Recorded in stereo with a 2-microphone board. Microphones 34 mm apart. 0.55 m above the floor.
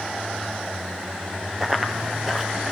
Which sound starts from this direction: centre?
Running footsteps, at 1.6 s.